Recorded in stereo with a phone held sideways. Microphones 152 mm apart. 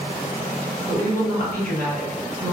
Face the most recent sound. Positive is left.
turn(degrees=-85)